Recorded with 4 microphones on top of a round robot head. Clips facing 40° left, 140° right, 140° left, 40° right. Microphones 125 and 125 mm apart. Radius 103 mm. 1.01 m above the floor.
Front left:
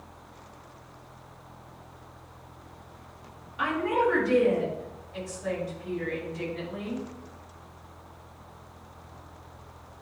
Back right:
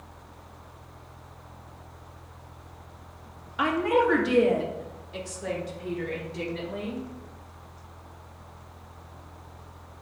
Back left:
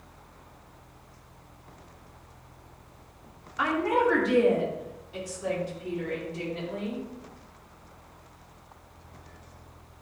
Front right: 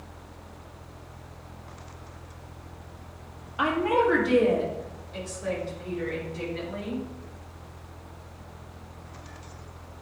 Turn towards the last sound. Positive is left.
turn(degrees=-155)